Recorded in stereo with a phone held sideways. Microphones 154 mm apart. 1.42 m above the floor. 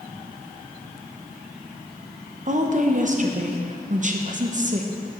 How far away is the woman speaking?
About 0.8 m.